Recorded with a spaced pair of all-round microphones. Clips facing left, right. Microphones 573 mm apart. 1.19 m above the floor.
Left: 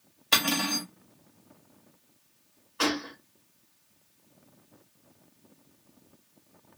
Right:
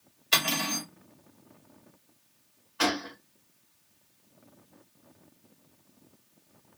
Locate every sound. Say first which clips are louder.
0.3 s cutlery clinking: left 3 dB; 70° left (ahead or behind), 1.2 m
2.8 s a gunshot: left 1 dB; 15° right (ahead or behind), 1.0 m